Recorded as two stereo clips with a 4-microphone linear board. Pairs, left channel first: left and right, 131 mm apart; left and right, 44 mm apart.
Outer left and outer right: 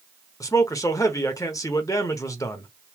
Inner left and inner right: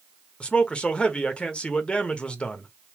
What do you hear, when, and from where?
0.4 s a man speaking: 25° left (ahead or behind), 1.1 m